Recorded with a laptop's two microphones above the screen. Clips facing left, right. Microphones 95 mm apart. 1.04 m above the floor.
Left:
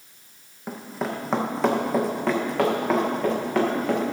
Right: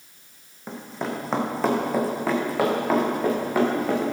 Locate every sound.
0.7 s running footsteps: 5° left (ahead or behind), 2 m; by 4.1 s 5° right (ahead or behind), 5 m